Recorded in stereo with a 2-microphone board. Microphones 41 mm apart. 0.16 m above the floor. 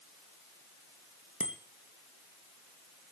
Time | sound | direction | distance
1.4 | a bicycle bell | 35° right (ahead or behind) | 2.5 m